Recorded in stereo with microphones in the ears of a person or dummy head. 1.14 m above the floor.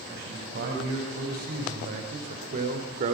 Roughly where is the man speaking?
Right.